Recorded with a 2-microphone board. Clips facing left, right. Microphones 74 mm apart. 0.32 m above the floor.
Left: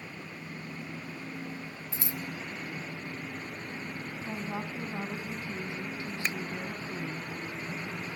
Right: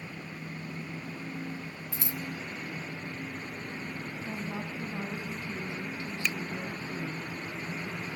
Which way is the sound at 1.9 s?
30° left (ahead or behind).